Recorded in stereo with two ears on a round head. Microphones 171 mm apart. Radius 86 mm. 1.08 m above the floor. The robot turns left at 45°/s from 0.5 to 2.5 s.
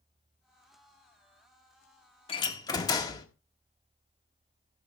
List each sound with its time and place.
2.3 s a door slam: 30° left (ahead or behind), 1.6 m; by 3.3 s 20° left (ahead or behind), 1.6 m